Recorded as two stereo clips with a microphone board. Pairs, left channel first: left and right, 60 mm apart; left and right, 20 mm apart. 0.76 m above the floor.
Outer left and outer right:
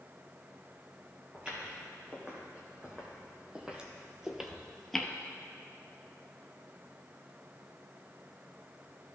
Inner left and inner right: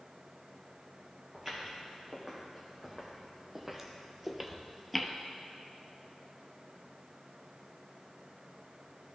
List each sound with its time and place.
1.3 s footsteps: 20° right (ahead or behind), 3 m; by 5.1 s 5° left (ahead or behind), 0.8 m